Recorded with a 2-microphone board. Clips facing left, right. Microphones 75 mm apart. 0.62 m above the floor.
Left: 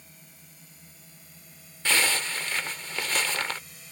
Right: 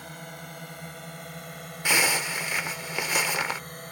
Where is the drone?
70° right (ahead or behind); by 3.9 s 55° right (ahead or behind).